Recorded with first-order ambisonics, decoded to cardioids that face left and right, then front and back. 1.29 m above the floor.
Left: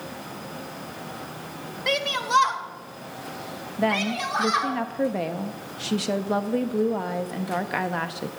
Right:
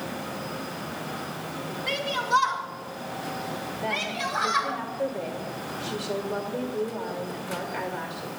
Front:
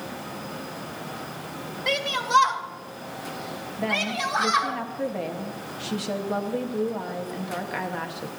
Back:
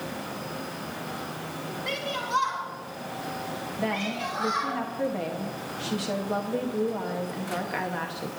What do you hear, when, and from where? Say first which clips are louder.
1.9 s a shout: left 2 dB, front 7 dB; 60° left, 1.4 m; by 4.8 s 35° left, 3 m
3.8 s a woman speaking: left 5 dB, front 5 dB; 85° left, 1.0 m